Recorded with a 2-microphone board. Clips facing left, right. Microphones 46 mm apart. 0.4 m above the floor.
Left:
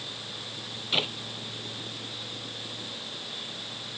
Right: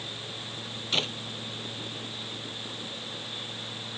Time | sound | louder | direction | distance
0.9 | a clap | left 1 dB | 10° left (ahead or behind) | ?